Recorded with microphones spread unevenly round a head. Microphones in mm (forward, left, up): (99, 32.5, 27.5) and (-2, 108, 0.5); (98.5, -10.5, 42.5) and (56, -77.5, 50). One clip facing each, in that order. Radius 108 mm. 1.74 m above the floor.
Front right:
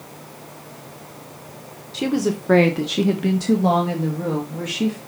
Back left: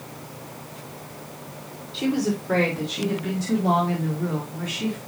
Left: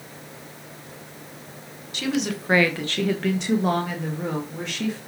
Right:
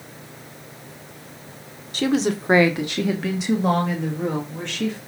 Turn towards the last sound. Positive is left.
turn(degrees=-25)